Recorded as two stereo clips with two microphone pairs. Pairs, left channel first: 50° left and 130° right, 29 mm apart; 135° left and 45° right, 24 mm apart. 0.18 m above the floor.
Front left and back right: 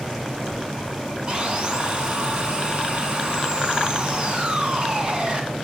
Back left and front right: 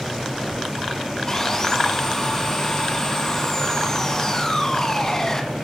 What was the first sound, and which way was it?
Sawing, 175° right.